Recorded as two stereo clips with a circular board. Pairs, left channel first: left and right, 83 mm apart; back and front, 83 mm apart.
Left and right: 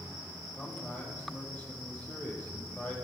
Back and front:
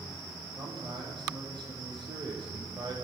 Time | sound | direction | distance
0.6 | a man speaking | 20° left | 7.5 m